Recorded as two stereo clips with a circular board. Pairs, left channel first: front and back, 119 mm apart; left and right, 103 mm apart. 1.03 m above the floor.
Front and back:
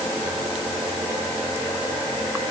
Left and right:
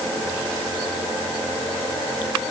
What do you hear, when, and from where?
Only background noise.